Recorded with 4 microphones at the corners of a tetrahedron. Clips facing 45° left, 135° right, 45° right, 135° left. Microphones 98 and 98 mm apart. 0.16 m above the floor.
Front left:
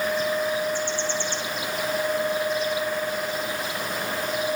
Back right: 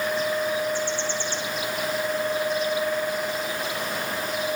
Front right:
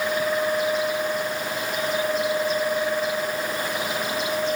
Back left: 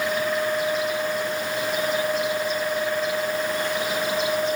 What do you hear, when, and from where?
Only background noise.